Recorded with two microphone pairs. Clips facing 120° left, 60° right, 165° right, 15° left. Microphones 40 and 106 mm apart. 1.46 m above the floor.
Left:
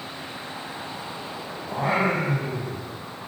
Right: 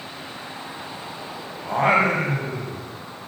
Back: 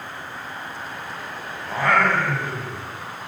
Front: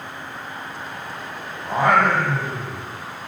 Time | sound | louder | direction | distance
1.6 | singing | right 5 dB, front 3 dB | 55° right | 8.5 m